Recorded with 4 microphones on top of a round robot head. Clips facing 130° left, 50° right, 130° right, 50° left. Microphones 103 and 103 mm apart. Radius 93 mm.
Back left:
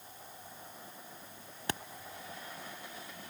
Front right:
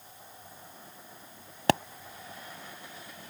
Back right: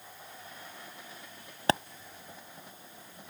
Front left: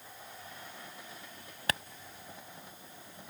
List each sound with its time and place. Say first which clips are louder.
1.7 s a pop: front right 14 dB, back right 8 dB; 70° right